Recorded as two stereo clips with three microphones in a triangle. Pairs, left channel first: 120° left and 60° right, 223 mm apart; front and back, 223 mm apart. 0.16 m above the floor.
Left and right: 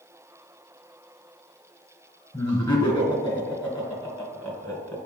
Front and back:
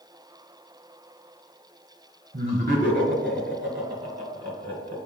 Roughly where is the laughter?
Behind.